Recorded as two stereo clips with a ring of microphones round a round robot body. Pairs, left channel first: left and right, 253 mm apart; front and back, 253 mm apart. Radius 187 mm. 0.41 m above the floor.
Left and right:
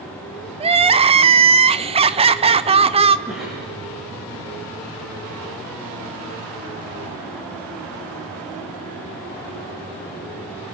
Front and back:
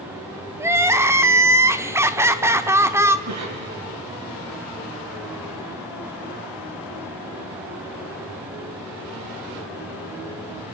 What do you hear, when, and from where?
0.6 s crying: 115° right, 0.9 m
3.3 s a cough: straight behind, 6 m